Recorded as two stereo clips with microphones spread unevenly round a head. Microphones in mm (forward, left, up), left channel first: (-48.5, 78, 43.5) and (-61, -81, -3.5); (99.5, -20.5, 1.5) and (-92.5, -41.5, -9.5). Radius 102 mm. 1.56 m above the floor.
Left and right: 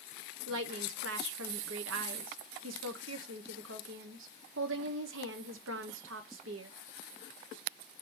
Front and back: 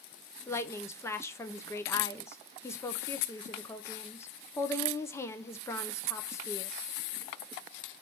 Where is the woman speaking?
70° right, 0.6 m.